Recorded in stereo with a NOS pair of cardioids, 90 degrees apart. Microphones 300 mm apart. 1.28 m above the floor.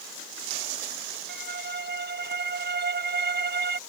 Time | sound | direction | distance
1.3 | a violin | 35° right | ?